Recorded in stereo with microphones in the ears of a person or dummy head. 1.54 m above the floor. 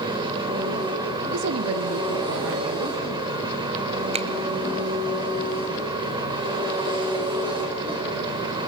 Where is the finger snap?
30° right (ahead or behind), 0.7 m.